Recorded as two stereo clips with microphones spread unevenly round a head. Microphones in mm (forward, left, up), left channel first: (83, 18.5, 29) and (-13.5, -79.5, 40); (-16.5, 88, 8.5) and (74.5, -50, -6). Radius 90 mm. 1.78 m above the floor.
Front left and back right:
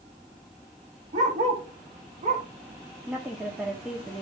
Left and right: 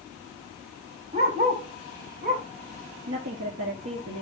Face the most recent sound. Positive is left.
turn(degrees=-50)